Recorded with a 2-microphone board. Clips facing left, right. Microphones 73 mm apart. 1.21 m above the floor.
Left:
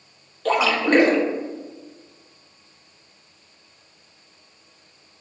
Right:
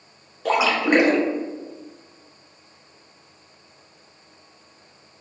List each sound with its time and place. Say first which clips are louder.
0.5 s a splash: even; 15° right (ahead or behind), 0.7 m